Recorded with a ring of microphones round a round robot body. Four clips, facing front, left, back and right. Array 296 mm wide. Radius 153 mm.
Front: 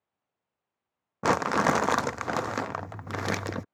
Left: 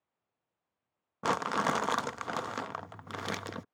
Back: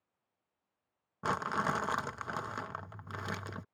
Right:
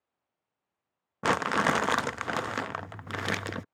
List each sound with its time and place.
1.2 s crumpling: 15° right